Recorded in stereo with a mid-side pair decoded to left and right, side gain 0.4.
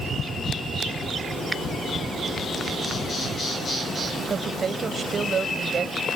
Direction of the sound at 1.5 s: 20° right.